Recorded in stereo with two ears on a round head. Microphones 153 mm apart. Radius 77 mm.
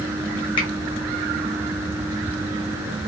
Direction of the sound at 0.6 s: 30° left (ahead or behind).